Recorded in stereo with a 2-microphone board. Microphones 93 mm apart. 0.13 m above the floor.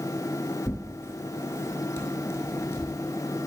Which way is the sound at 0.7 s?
30° left (ahead or behind).